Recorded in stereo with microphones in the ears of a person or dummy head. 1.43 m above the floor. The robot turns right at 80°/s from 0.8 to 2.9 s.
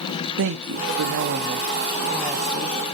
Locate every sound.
0.4 s a woman speaking: 110° right, 0.5 m; by 2.8 s 50° left, 0.5 m